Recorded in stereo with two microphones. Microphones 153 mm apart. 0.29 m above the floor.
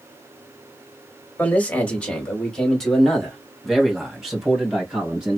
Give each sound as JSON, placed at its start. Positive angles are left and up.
{"t": 1.4, "sound": "a man speaking", "side_deg": 10, "distance_m": 1.6}